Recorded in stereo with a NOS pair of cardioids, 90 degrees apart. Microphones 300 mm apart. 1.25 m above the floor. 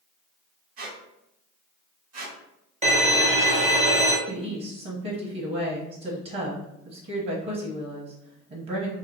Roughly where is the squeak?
Ahead right.